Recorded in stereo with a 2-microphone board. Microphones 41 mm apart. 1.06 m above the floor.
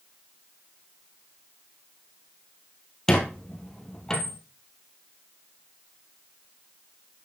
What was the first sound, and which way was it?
A squeak, 15° left (ahead or behind).